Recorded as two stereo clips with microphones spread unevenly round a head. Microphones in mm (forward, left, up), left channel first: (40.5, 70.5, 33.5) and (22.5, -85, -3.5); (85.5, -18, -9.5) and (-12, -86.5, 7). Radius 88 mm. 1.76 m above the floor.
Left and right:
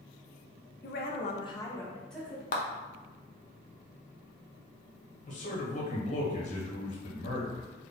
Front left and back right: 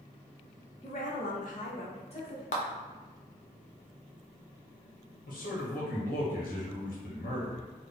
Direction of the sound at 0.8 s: 95° left.